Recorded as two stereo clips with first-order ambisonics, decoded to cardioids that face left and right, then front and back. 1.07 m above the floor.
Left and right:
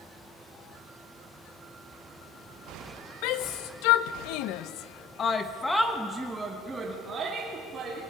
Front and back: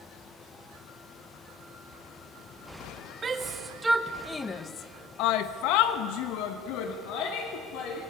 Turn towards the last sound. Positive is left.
turn(degrees=-25)